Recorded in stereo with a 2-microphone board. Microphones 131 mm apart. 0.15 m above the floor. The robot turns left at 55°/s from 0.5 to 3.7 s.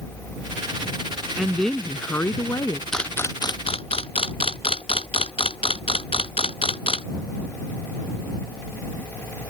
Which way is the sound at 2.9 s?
5° left (ahead or behind).